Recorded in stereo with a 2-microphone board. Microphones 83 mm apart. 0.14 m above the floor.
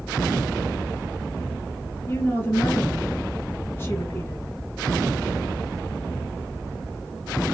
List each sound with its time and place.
2.1 s a woman speaking: 25° left (ahead or behind), 1.2 m